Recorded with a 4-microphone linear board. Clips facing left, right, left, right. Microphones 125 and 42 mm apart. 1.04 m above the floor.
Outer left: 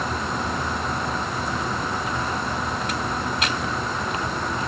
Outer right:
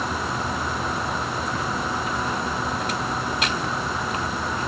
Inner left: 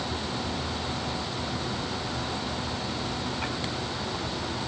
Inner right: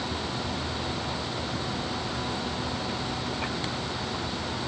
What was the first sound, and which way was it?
Only background noise.